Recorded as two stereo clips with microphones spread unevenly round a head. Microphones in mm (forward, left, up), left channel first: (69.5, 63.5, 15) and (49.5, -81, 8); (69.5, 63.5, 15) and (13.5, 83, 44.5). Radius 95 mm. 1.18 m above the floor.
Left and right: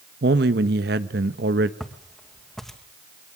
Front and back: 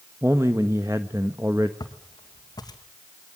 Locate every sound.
0.2 s a man speaking: 125° right, 1.2 m
1.8 s footsteps: 5° right, 3 m